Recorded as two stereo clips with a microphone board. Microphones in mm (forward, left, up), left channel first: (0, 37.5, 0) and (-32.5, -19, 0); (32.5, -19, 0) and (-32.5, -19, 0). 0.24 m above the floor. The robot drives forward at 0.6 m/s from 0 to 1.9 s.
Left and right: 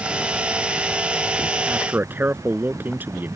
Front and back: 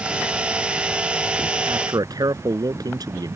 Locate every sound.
1.7 s a man speaking: straight behind